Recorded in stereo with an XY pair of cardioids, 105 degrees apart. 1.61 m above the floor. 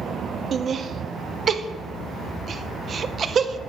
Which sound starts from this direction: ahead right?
Laughter, at 0.5 s.